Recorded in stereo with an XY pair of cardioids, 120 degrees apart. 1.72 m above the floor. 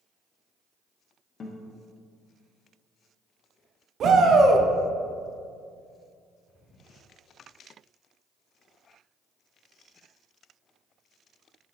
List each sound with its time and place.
1.4 s a guitar: 35° left, 1.0 m
4.0 s a shout: 50° right, 0.8 m